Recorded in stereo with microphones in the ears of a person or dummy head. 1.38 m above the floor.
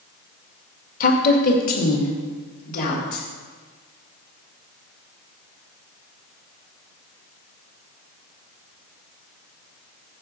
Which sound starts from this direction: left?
A woman speaking, at 1.0 s.